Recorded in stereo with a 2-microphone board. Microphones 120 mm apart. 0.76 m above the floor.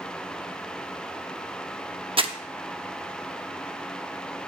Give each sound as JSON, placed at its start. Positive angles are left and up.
{"t": 2.2, "sound": "crumpling", "side_deg": -45, "distance_m": 0.8}